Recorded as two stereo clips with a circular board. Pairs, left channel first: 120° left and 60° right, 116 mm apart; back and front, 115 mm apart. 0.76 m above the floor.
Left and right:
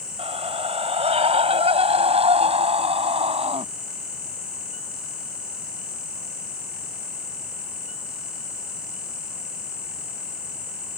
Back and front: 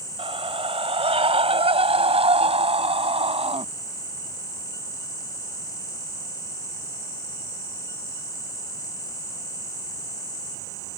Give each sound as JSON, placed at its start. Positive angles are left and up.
{"t": 0.2, "sound": "a scream", "azimuth_deg": -35}